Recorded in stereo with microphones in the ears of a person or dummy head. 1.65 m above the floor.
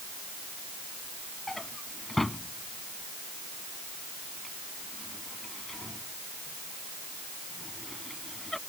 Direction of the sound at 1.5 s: 5° left (ahead or behind).